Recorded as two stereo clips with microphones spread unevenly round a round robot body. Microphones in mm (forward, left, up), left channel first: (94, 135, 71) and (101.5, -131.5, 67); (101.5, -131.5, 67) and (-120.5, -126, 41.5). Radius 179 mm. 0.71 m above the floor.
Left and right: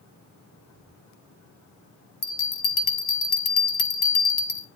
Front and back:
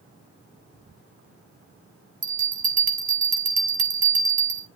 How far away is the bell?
About 0.8 m.